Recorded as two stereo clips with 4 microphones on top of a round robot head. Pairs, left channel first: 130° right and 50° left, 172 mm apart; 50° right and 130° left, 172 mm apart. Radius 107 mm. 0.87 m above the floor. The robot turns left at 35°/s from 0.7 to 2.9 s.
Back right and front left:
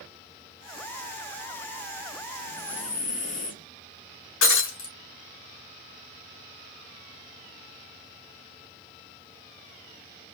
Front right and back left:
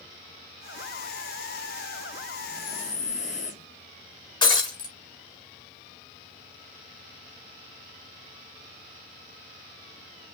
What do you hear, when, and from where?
2.4 s breathing: 75° right, 1.8 m; by 3.7 s 95° right, 1.8 m
4.4 s breaking glass: 115° right, 1.4 m